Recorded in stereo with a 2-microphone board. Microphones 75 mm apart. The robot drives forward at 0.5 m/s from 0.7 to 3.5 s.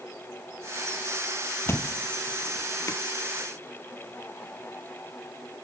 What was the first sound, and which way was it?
A thud, 35° left (ahead or behind).